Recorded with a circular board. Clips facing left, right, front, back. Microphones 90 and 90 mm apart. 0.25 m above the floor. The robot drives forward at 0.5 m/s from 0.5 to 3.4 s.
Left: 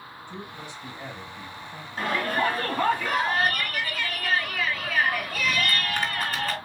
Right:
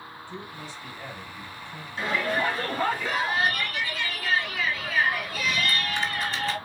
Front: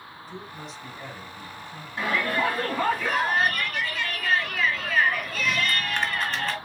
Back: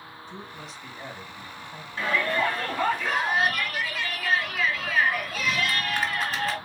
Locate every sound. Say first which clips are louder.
0.3 s a man speaking: left 1 dB, front 2 dB; 80° left, 1.3 m; by 1.9 s 145° left, 1.4 m
2.0 s a shout: left 1 dB, even; 75° left, 2 m; by 6.6 s 100° left, 2 m